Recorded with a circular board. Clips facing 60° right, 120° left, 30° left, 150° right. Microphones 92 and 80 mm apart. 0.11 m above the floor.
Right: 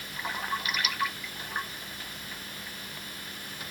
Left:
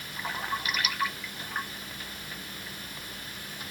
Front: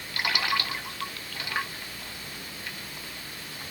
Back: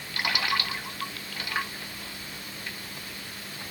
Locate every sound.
Only background noise.